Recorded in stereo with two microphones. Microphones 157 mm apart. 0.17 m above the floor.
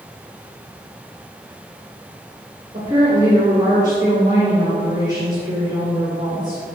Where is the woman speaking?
20° right (ahead or behind), 2 m.